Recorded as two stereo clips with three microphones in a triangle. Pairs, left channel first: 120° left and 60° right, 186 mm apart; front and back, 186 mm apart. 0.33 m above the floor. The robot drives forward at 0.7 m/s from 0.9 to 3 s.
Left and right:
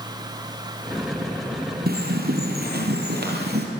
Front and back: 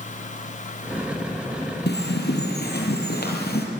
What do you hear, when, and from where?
1.9 s a bird: 25° right, 5.5 m; by 3.7 s 30° right, 4.5 m